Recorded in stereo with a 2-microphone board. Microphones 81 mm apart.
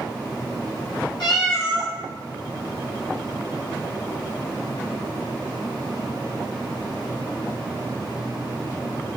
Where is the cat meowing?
65° left (ahead or behind), 1.1 m.